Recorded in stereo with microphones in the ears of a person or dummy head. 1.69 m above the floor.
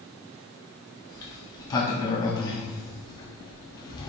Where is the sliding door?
20° left (ahead or behind), 0.5 m.